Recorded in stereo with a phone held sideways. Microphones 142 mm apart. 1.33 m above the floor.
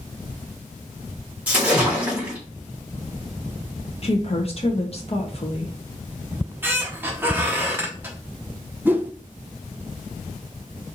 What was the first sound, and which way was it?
A splash, 10° right (ahead or behind).